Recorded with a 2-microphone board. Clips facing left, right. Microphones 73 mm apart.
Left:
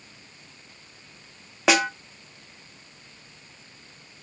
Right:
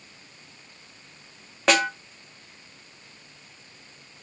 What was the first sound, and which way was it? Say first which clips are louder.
A snare drum: even; 5° left (ahead or behind).